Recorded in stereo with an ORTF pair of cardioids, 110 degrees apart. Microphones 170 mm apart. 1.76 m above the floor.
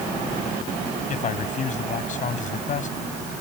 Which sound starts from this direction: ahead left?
A man speaking, at 1.1 s.